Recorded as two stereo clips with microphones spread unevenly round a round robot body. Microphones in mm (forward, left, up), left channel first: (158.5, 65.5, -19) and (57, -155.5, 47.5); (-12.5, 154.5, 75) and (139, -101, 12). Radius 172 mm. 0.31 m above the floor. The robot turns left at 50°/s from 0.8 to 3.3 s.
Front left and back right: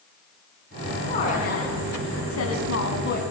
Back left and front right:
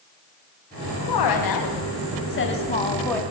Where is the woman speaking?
135° left, 3 m; by 3.2 s 30° left, 3 m.